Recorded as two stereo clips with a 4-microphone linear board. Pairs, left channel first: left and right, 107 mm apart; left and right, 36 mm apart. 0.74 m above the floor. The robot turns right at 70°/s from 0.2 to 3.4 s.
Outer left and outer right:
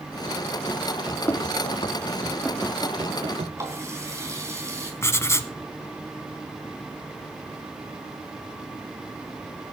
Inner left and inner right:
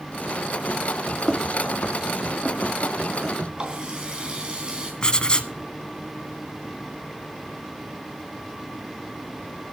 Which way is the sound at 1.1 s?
Centre (ahead or behind).